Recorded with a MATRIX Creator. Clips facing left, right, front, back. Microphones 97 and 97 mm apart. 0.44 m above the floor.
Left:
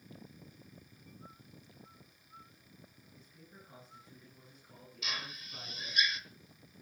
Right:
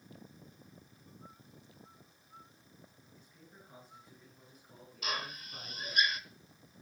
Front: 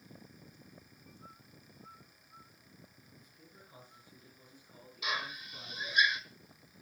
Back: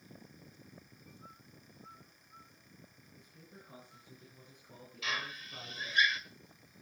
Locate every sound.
3.2 s a man speaking: 175° left, 9.5 m; by 6.0 s 170° right, 6.5 m
5.0 s a drill: 65° right, 1.4 m